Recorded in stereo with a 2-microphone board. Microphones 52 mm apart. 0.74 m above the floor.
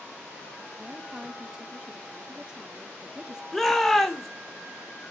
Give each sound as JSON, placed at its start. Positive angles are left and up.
{"t": 0.8, "sound": "a woman speaking", "side_deg": -15, "distance_m": 1.7}
{"t": 3.5, "sound": "a shout", "side_deg": 5, "distance_m": 3.0}